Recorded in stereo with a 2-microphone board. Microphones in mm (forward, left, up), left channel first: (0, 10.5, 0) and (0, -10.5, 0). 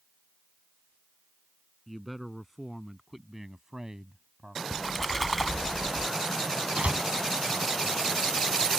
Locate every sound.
1.9 s a man speaking: 5° right (ahead or behind); by 4.6 s 50° right (ahead or behind)
4.7 s a splash: 10° left (ahead or behind)
6.8 s a door slam: 70° right (ahead or behind)